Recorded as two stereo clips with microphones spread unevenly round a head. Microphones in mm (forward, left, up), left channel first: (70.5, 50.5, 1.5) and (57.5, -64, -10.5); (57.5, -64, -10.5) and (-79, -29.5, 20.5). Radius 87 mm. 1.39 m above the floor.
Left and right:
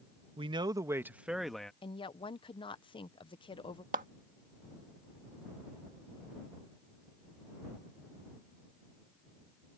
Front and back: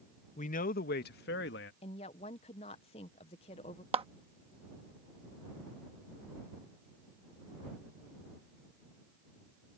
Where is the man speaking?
55° right; by 1.7 s straight ahead.